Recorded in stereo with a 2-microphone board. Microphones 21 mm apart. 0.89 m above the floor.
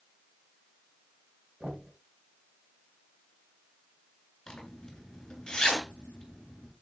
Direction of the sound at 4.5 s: 40° left (ahead or behind).